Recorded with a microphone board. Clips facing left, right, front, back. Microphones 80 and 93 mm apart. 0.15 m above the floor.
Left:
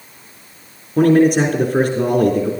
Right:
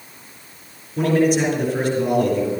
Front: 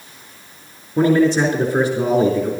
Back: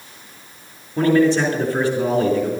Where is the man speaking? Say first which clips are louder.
Left 5 dB, front 1 dB; 75° left, 4 m.